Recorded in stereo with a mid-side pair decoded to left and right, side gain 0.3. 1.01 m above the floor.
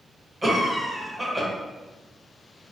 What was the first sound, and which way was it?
A cough, 30° right.